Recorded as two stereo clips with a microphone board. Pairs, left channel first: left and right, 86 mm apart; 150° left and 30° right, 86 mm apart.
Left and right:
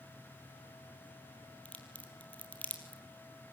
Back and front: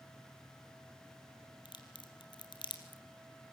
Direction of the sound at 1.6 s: 160° left.